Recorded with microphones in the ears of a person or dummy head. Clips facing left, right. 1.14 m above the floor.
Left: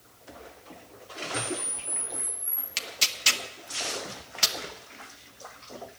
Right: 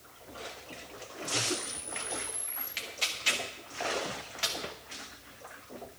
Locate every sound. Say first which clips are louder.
1.3 s a camera shutter: left 1 dB; 70° left (ahead or behind), 3 m
2.8 s tearing paper: left 3 dB; 60° left (ahead or behind), 1.0 m